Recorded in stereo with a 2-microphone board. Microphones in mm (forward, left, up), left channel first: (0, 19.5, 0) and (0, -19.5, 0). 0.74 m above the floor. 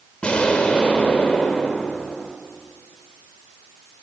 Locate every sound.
0.2 s an explosion: 30° left (ahead or behind), 3 m